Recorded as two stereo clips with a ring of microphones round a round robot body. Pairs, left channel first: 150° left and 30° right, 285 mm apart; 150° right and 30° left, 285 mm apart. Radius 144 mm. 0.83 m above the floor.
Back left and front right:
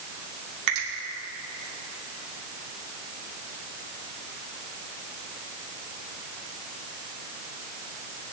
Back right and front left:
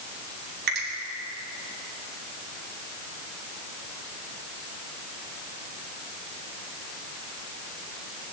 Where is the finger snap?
25° right, 2.5 m.